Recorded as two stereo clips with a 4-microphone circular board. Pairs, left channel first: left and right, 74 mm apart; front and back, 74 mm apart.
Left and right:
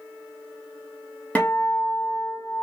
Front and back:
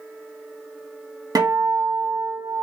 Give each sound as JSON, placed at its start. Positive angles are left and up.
{"t": 1.4, "sound": "a guitar", "azimuth_deg": 160, "distance_m": 1.1}